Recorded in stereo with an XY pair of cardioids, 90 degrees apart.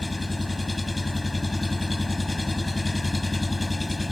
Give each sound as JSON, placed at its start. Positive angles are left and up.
{"t": 0.0, "sound": "an engine running", "azimuth_deg": 20}